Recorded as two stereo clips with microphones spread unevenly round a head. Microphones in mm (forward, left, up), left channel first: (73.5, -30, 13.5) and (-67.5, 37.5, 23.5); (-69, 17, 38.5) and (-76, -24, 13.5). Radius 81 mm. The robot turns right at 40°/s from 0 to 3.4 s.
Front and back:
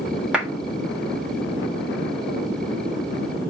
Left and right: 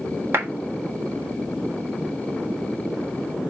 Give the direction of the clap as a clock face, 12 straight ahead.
4 o'clock.